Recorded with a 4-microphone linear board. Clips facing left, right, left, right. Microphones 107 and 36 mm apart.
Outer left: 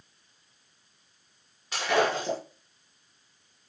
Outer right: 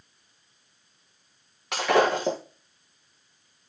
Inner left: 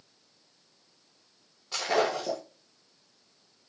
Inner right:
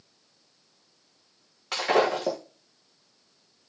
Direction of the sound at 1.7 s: 85° right.